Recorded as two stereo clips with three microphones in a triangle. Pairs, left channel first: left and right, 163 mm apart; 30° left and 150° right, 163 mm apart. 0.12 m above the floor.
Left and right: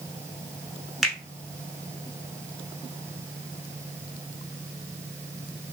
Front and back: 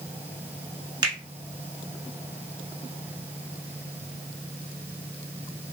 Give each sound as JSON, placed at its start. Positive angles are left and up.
{"t": 1.0, "sound": "a finger snap", "azimuth_deg": 180, "distance_m": 1.0}